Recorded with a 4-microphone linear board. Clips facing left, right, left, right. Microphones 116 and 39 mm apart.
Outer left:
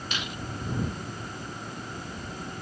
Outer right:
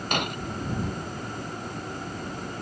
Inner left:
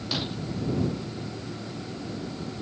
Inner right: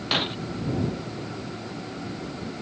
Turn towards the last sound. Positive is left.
turn(degrees=-55)  # may be behind; listen again after turning